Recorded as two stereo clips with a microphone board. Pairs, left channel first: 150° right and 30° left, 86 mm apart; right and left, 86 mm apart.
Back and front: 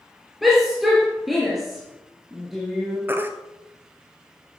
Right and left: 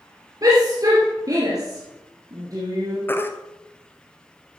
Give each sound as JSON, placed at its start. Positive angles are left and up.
{"t": 0.4, "sound": "a shout", "azimuth_deg": 120, "distance_m": 2.5}
{"t": 3.1, "sound": "a baby crying", "azimuth_deg": -30, "distance_m": 0.9}